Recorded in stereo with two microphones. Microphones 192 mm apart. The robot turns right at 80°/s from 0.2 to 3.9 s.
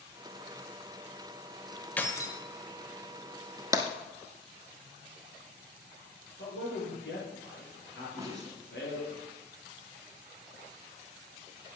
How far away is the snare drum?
About 2.0 m.